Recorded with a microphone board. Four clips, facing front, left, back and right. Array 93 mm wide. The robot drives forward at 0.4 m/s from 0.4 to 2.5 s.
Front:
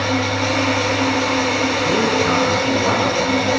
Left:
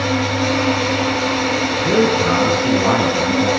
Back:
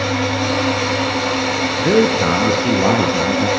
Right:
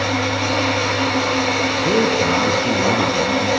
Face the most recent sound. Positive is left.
turn(degrees=180)